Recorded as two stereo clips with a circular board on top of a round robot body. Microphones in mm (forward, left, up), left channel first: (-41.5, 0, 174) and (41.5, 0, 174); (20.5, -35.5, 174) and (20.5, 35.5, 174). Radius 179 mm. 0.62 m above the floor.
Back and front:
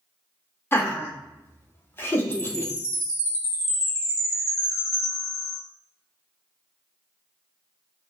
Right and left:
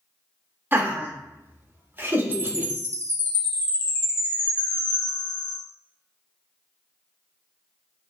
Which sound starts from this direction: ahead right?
A chime, at 2.3 s.